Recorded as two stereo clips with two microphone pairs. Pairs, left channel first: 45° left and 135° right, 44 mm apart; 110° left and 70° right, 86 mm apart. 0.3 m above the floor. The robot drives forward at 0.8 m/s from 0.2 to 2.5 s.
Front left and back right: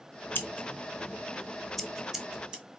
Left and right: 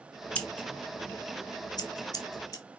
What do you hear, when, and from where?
0.3 s scissors: 35° left, 1.0 m; by 2.6 s 150° left, 1.2 m